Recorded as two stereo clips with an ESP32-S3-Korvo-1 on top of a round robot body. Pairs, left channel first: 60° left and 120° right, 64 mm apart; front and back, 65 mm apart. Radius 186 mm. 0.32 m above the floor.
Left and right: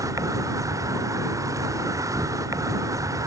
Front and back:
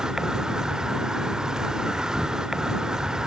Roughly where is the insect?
Right.